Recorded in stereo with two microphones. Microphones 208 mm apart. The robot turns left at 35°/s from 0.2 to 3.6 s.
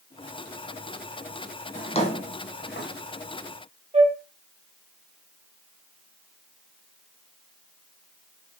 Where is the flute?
30° right (ahead or behind), 0.7 m.